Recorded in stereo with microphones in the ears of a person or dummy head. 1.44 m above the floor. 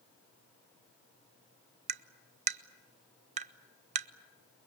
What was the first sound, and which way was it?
Tapping, 45° right (ahead or behind).